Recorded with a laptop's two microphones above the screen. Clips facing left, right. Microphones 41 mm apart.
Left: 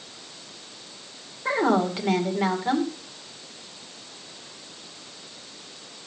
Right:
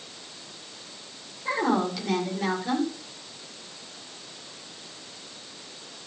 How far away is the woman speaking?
About 2.5 m.